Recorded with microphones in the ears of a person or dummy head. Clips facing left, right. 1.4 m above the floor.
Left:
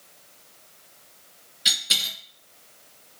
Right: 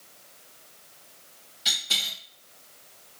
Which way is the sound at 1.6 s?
20° left (ahead or behind).